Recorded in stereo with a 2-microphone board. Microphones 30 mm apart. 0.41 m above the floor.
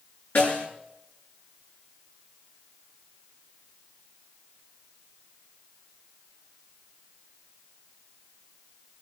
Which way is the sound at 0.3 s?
70° left (ahead or behind).